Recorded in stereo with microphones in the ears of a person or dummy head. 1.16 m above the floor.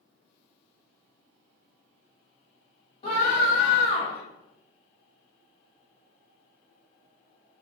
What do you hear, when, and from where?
3.0 s a scream: 40° left (ahead or behind), 1.3 m